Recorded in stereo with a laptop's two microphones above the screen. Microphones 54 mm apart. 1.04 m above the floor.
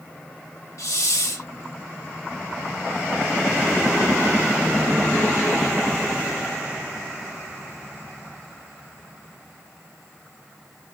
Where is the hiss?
70° left (ahead or behind), 1.8 m.